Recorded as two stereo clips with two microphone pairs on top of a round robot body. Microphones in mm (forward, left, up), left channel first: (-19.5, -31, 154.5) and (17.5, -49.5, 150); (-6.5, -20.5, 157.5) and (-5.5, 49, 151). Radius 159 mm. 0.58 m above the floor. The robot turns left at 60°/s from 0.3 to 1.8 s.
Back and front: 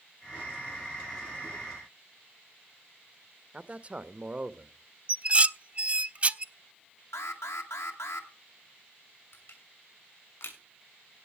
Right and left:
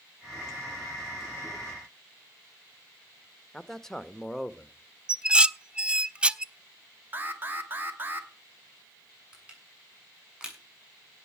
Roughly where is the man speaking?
Ahead.